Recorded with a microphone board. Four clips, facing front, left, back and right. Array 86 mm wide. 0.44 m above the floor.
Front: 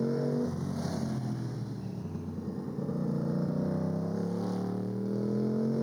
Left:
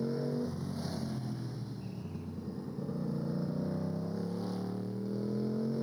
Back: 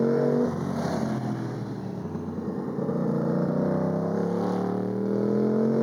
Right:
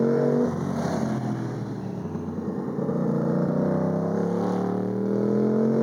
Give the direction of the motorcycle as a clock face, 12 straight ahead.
4 o'clock.